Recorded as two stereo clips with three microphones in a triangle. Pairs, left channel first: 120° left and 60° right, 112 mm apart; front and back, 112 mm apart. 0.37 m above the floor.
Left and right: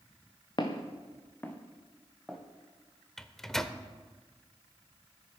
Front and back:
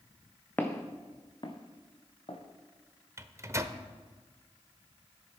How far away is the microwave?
About 0.6 m.